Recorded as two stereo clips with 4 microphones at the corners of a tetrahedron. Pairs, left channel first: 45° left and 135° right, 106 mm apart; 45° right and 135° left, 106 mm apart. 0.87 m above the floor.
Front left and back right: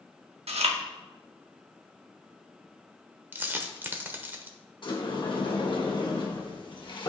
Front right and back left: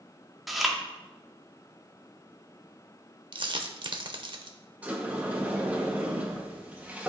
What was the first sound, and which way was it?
Chewing, 135° right.